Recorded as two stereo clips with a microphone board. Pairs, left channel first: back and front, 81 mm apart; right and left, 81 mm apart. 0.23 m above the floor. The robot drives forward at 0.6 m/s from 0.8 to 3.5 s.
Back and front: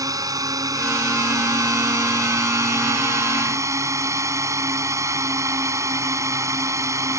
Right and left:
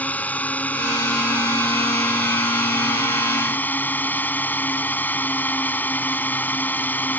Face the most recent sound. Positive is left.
turn(degrees=-30)